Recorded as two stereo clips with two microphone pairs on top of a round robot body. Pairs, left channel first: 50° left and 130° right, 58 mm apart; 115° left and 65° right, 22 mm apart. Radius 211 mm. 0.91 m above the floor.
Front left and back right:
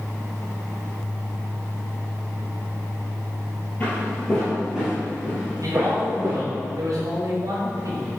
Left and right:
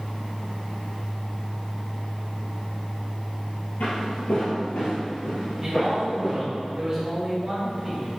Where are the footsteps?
115° left, 1.7 m; by 6.4 s straight behind, 2 m.